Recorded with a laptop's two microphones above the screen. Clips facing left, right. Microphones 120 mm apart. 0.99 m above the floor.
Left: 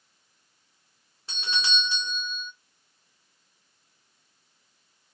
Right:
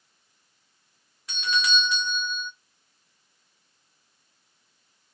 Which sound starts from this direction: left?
A doorbell, at 1.3 s.